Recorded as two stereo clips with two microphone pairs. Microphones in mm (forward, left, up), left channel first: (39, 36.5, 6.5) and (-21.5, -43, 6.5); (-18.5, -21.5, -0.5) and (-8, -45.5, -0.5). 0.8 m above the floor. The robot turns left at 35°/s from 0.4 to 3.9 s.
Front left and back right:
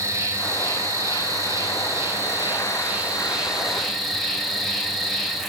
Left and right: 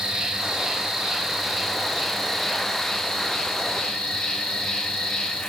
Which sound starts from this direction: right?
An insect, at 0.0 s.